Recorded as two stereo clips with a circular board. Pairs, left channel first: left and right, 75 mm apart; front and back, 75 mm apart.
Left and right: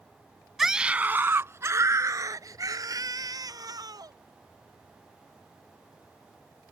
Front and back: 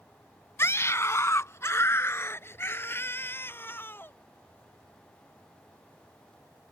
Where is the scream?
5° right; by 4.1 s 65° right.